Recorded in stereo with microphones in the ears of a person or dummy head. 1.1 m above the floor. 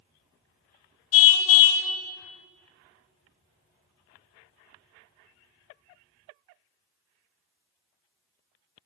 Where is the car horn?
80° left, 3 m.